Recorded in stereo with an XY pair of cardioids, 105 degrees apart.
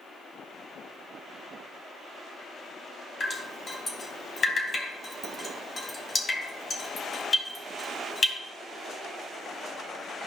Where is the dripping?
35° left, 3 m.